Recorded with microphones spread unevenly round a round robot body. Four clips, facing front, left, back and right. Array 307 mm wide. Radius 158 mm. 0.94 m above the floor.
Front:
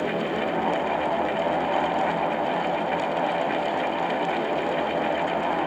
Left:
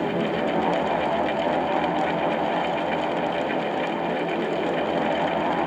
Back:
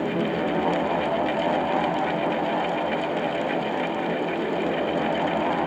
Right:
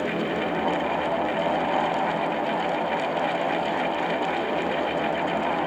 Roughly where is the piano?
No piano in this recording.